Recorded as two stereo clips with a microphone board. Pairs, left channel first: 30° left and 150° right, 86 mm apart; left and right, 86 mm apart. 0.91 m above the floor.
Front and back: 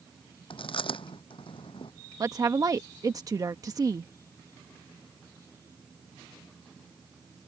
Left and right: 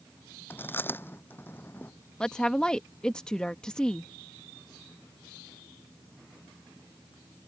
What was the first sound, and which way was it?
Chewing, 25° left.